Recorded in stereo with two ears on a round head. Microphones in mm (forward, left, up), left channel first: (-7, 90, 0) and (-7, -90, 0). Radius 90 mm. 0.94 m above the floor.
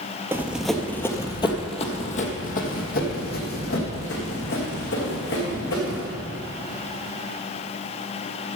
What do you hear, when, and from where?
0.3 s running footsteps: 10° right (ahead or behind), 0.9 m; by 6.0 s 60° left (ahead or behind), 3.5 m